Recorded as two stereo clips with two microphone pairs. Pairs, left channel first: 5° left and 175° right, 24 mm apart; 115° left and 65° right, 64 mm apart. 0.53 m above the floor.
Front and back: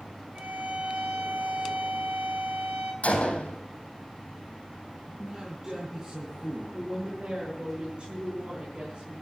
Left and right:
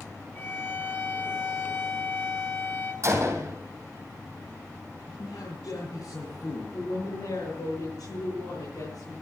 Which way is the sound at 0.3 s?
170° left.